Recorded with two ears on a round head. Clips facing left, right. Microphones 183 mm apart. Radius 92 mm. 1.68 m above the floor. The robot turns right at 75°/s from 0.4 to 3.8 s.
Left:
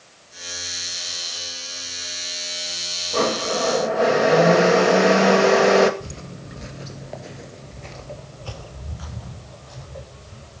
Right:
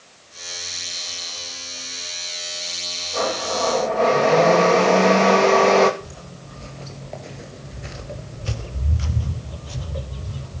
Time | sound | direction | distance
3.1 | a blender | 120° left | 2.5 m
6.0 | footsteps | 35° left (ahead or behind) | 2 m